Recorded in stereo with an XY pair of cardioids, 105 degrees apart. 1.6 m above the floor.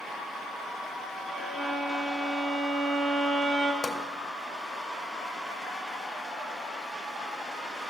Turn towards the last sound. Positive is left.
turn(degrees=30)